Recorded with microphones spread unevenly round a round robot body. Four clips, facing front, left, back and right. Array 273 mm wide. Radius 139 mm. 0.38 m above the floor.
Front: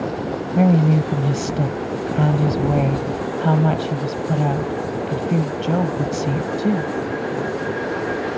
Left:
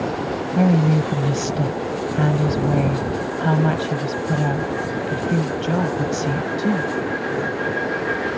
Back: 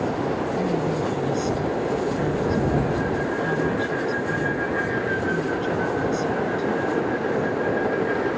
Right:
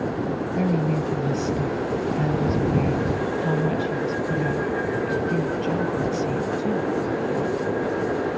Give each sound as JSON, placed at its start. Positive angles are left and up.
{"t": 0.6, "sound": "a woman speaking", "azimuth_deg": 35}